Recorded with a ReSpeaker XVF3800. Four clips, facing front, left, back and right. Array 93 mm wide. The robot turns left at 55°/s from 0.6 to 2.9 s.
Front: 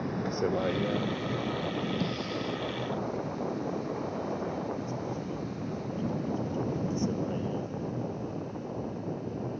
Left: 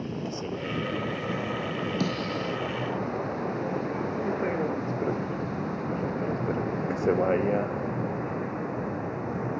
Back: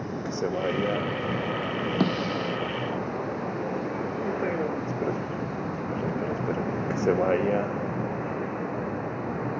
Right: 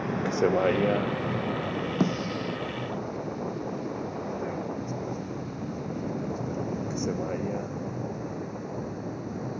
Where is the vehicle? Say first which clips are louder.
Right 8 dB, back 1 dB; 100° right; by 9.6 s 150° left.